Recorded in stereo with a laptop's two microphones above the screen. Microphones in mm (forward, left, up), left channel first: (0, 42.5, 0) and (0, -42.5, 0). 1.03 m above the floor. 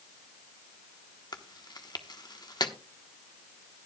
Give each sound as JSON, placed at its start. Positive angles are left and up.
{"t": 1.3, "sound": "chewing", "side_deg": 55, "distance_m": 1.0}